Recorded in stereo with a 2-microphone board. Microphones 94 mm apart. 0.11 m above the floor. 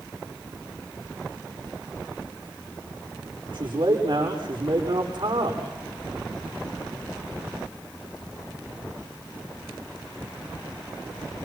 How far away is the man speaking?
About 8 m.